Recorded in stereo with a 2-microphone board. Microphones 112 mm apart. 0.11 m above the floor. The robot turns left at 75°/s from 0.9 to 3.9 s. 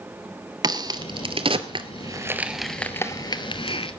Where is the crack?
35° right (ahead or behind), 1.0 m; by 3.9 s 55° left (ahead or behind), 1.0 m.